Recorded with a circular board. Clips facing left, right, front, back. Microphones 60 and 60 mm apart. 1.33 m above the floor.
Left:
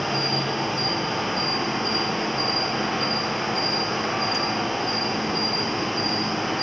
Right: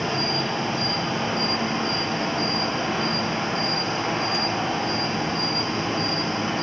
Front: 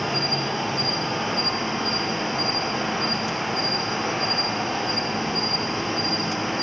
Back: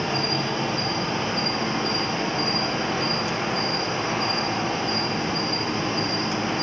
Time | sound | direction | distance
0.0 | an insect | 55° left | 1.1 m